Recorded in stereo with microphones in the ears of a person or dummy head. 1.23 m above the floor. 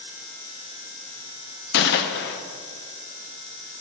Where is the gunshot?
55° left (ahead or behind), 0.6 m.